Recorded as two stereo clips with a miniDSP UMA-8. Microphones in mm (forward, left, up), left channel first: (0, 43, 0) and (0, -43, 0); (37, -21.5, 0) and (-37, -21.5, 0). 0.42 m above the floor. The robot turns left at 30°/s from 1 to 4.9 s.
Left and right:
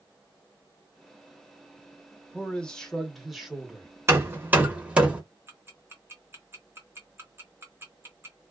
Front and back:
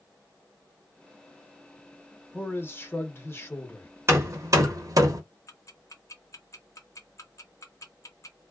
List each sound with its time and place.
2.3 s a man speaking: 30° left, 0.9 m; by 3.9 s 20° right, 0.9 m
4.1 s hammering: 140° right, 0.8 m; by 5.2 s 165° right, 0.8 m
5.5 s ticking: 35° right, 0.8 m